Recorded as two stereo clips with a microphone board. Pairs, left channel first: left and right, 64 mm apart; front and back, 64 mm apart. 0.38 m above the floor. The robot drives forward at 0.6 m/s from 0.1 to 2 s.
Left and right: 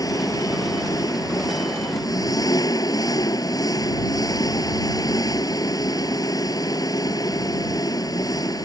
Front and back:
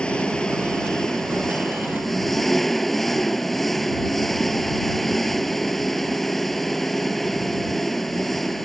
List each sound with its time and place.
0.0 s an engine running: 75° left; by 8.7 s 85° left